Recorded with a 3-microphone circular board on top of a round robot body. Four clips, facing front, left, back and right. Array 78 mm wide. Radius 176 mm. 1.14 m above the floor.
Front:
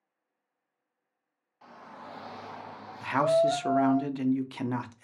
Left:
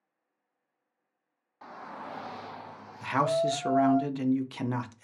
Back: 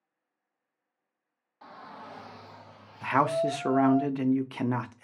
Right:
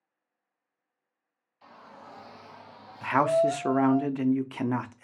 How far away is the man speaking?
About 0.6 m.